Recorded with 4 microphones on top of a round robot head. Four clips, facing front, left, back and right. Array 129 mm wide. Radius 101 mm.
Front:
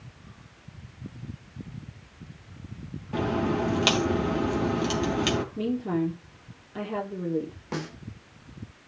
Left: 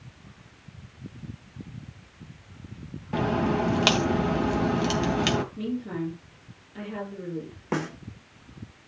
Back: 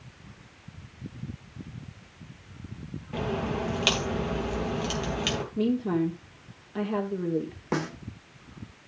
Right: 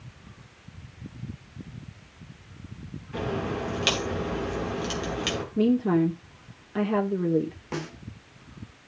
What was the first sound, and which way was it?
A crack, 80° left.